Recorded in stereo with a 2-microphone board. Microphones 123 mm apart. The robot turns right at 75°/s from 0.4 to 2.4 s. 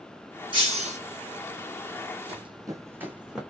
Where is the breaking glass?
140° right, 3 m; by 1.0 s 105° right, 3 m.